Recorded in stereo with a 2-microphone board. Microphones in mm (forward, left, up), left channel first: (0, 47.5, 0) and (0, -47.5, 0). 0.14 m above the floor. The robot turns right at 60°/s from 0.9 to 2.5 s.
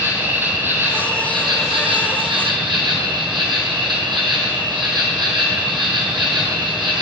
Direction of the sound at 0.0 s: 155° right.